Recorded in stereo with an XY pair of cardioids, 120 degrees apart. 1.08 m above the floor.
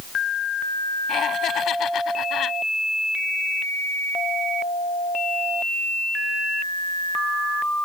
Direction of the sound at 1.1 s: 55° left.